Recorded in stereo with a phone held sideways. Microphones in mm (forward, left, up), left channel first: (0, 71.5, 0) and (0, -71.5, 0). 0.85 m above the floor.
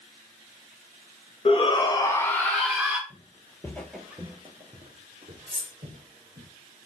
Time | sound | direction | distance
1.4 | a shout | 40° left (ahead or behind) | 1.0 m
3.1 | footsteps | 35° left (ahead or behind) | 1.0 m
5.5 | cutlery clinking | 55° left (ahead or behind) | 1.1 m